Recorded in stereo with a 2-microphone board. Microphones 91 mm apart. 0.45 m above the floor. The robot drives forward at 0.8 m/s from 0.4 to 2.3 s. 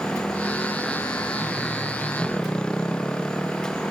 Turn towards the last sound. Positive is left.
turn(degrees=10)  # may be behind; listen again after turning